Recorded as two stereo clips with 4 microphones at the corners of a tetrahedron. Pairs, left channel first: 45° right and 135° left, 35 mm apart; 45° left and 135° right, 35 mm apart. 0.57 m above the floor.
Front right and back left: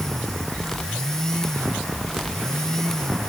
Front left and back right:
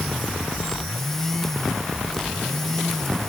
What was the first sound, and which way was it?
Only background noise.